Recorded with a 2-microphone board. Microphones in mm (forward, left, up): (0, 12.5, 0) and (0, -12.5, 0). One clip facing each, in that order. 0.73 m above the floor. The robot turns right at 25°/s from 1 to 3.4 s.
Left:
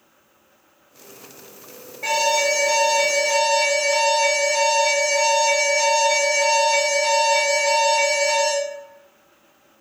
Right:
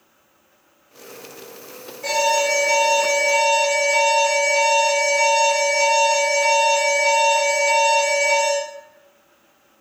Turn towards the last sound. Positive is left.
turn(degrees=115)